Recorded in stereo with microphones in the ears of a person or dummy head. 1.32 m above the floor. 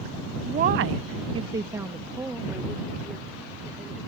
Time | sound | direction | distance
0.4 | a woman speaking | 30° right (ahead or behind) | ?